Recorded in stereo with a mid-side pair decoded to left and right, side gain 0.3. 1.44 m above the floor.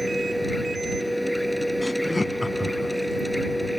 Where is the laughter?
20° left.